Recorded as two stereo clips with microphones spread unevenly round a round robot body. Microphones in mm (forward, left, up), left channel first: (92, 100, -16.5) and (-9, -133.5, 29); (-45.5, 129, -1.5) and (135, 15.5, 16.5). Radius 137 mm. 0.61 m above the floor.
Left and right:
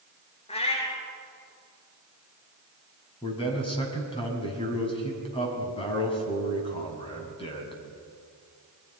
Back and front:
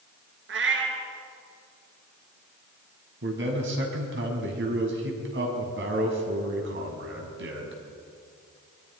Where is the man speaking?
Straight ahead, 5 m.